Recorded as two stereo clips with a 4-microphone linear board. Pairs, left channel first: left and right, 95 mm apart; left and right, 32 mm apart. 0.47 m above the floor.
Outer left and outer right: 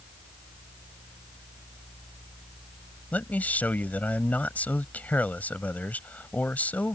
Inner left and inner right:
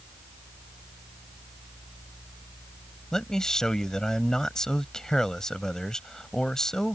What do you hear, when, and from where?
3.1 s a man speaking: 15° left (ahead or behind)